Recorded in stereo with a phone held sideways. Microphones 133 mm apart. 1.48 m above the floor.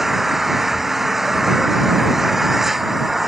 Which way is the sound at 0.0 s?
Centre (ahead or behind).